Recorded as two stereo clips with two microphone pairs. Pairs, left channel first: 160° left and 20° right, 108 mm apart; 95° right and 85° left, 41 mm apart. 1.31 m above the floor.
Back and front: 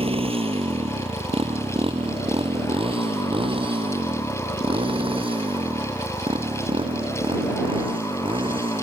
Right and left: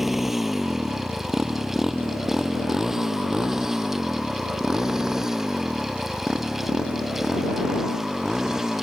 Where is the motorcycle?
Straight ahead; by 8.8 s 10° left.